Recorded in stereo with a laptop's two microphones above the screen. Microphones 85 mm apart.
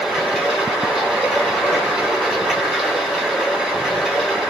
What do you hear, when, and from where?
0.0 s running water: centre (ahead or behind), 1.4 m